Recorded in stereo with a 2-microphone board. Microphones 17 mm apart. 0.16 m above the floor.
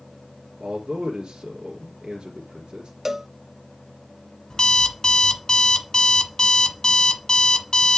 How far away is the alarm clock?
About 1.1 m.